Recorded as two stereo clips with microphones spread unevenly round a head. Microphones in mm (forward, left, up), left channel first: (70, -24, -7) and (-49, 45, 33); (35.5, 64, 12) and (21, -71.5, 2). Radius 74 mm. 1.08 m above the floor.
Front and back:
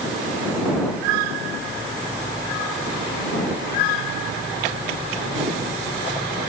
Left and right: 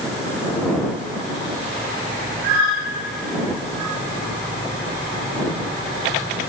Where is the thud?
No thud in this recording.